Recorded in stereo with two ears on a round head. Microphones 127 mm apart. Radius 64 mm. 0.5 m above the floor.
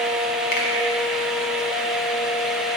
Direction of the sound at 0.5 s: 60° left (ahead or behind).